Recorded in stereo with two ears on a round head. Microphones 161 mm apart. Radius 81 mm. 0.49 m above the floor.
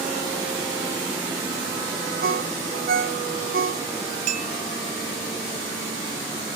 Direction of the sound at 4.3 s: 55° right (ahead or behind).